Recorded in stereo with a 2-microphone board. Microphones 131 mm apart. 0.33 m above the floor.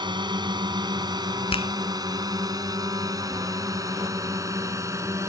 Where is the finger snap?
45° left (ahead or behind).